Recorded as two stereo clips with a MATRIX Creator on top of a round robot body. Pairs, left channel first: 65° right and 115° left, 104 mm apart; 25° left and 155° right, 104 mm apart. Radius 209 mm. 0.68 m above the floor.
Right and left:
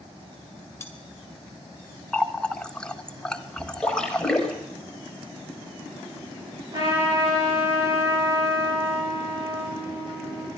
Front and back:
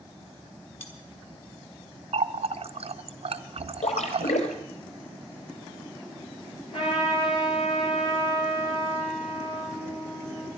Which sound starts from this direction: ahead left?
A trumpet, at 6.7 s.